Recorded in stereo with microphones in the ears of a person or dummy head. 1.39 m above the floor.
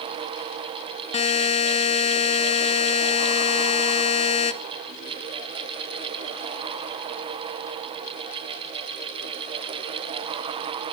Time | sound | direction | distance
1.1 | a buzzer | 35° left (ahead or behind) | 0.6 m